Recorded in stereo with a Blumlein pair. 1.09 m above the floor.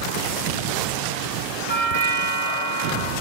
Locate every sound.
1.7 s a doorbell: 55° right, 3 m